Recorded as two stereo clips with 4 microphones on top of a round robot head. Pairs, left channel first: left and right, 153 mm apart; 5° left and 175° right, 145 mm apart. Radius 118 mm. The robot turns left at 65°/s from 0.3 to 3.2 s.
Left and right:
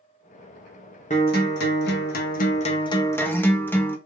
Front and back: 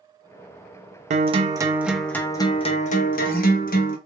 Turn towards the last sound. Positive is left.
turn(degrees=15)